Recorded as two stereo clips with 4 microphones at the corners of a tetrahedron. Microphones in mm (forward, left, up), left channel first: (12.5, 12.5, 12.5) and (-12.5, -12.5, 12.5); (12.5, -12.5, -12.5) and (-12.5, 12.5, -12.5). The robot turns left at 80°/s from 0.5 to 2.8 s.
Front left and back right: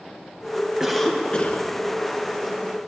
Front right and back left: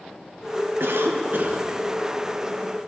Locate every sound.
0.8 s a cough: 145° left, 1.2 m; by 1.7 s 75° left, 1.2 m